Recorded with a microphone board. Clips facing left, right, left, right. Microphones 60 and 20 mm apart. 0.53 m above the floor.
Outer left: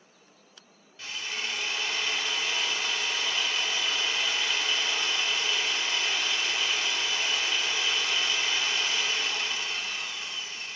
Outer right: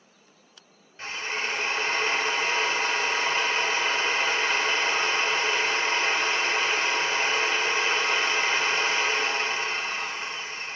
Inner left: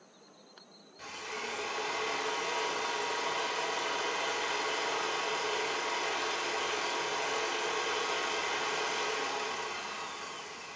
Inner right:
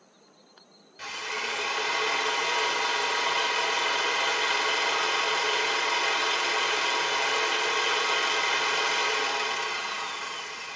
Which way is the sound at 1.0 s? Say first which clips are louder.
Outer right 5 dB, inner right 7 dB; 40° right (ahead or behind).